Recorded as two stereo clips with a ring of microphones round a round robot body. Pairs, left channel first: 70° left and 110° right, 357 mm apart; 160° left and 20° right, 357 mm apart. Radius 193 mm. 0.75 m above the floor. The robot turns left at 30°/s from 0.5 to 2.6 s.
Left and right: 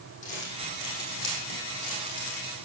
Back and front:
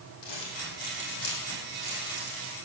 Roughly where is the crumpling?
Behind left.